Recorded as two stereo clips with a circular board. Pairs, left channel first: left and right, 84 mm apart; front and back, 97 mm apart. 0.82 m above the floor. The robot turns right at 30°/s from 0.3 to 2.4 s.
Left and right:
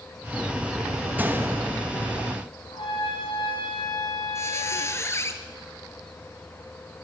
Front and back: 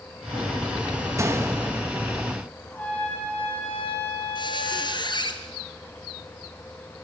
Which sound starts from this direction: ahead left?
A squeak, at 4.3 s.